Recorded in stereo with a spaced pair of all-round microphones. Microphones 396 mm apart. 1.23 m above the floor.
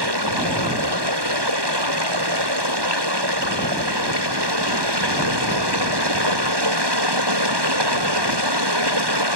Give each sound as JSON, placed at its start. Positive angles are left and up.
{"t": 0.0, "sound": "running water", "side_deg": -90}